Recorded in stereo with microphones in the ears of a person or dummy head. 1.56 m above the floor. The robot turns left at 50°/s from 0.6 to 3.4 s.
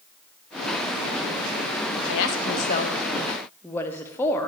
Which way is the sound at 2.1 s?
75° left (ahead or behind).